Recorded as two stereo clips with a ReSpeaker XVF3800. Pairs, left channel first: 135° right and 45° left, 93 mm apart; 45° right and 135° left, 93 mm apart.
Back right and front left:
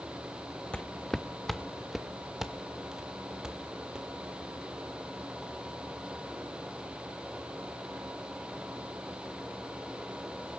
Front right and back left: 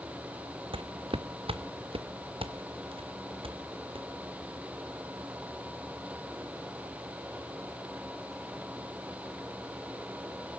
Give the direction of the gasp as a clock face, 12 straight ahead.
I don't hear a gasp.